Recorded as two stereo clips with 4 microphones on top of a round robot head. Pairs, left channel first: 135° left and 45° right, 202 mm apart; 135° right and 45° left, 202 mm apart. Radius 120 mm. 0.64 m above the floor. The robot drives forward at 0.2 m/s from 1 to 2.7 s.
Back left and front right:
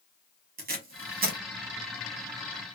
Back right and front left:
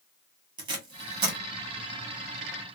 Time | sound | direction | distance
0.6 | tape being pulled | 20° right | 1.0 m